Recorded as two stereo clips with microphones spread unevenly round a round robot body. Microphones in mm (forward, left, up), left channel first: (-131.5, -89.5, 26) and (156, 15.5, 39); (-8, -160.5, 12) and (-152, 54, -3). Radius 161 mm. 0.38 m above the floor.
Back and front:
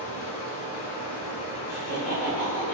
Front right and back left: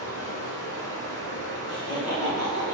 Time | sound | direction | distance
0.0 | running water | 135° right | 1.2 m
1.7 | laughter | 120° right | 1.1 m